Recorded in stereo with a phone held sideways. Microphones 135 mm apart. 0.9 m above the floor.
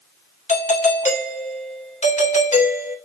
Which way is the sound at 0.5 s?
65° left (ahead or behind).